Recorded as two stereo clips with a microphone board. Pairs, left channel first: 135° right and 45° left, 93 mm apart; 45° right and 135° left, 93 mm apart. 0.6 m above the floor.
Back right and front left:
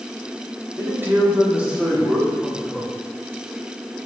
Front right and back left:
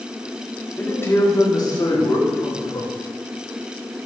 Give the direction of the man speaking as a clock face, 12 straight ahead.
12 o'clock.